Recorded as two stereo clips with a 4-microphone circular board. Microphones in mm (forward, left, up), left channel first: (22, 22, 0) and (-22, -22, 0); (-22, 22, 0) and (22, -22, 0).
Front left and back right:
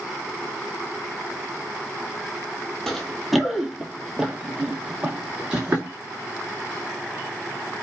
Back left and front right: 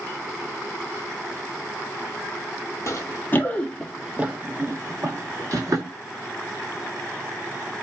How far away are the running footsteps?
About 0.7 m.